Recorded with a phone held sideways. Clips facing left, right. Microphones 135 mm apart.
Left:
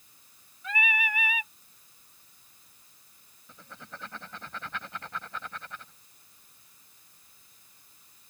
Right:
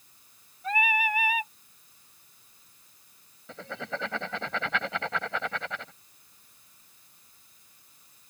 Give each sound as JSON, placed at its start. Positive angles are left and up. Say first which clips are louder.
{"t": 0.6, "sound": "singing", "louder": "right 5 dB", "side_deg": -40}
{"t": 3.5, "sound": "writing", "louder": "right 12 dB", "side_deg": -80}